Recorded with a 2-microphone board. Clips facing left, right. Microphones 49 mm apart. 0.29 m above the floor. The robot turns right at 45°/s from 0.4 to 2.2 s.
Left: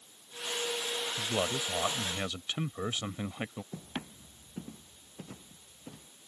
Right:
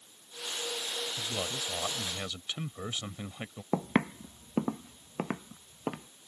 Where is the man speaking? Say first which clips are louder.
Left 7 dB; 25° left (ahead or behind); by 3.6 s 15° left (ahead or behind).